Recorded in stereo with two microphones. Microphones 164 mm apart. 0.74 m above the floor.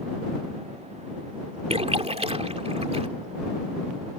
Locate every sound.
1.7 s a splash: 40° right (ahead or behind)